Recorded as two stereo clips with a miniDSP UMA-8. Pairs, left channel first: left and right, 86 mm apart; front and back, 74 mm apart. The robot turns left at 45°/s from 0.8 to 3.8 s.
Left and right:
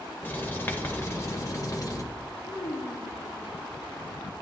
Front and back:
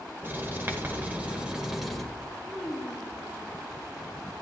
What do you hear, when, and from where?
0.2 s writing: 140° left, 1.1 m; by 2.0 s 85° left, 1.1 m
2.4 s a child speaking: 100° left, 3 m; by 3.5 s 55° left, 3 m